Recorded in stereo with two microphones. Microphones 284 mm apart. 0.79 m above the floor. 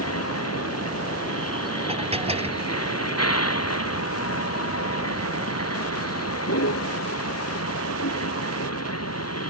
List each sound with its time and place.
0.0 s a vehicle: 55° left (ahead or behind)
1.9 s dishes clattering: 20° right (ahead or behind)